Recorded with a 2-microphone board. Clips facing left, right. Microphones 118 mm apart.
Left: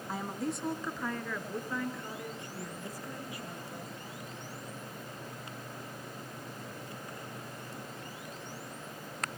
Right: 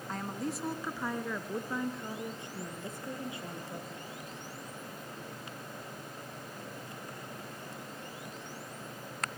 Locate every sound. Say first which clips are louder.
0.1 s a woman speaking: left 1 dB; 10° left (ahead or behind), 1.2 m; by 3.9 s 25° right (ahead or behind), 4.5 m